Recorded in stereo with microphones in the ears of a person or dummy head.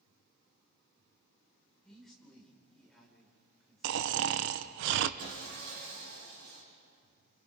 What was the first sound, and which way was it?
A man speaking, centre (ahead or behind).